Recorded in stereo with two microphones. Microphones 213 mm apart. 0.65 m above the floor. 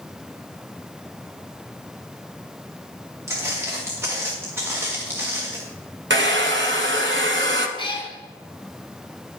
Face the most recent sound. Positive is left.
turn(degrees=25)  # may be behind; listen again after turning